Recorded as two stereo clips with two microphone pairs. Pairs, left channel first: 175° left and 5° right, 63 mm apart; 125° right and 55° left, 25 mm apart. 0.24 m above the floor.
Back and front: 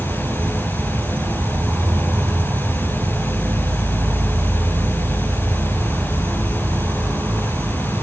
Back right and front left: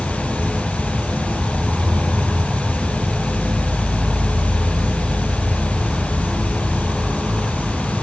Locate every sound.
0.0 s an insect: 30° left, 1.4 m